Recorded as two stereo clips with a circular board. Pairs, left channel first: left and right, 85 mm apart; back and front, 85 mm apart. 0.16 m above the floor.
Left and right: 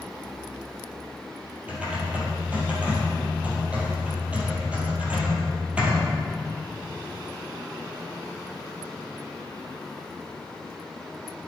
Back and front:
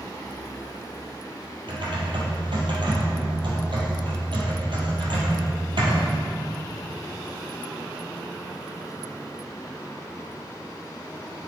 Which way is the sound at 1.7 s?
15° right.